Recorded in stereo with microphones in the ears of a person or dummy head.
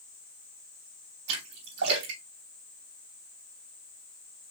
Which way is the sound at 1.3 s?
65° right (ahead or behind).